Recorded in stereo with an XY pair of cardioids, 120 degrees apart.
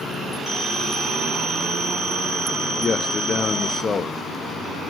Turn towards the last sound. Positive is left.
turn(degrees=35)